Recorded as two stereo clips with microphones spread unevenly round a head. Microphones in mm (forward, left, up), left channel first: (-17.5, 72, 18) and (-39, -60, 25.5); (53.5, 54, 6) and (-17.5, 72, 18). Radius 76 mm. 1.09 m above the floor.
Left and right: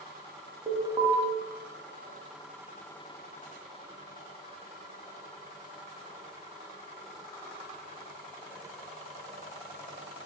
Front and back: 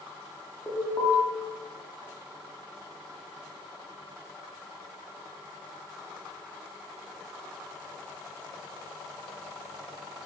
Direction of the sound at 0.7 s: 55° right.